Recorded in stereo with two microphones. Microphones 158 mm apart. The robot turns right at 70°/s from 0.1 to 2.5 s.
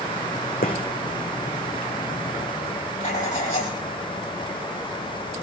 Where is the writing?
55° left (ahead or behind), 7.5 m.